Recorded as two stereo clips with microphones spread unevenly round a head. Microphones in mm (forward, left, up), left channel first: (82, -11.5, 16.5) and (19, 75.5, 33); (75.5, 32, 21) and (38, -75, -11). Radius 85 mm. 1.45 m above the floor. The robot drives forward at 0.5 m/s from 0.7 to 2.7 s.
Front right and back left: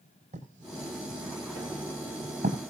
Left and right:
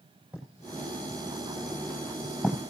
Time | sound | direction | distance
0.3 | writing | 165° left | 6 m